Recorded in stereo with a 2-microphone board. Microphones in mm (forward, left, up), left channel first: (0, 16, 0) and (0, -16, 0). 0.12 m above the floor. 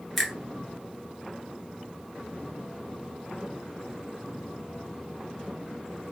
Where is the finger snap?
Centre (ahead or behind), 2.0 m.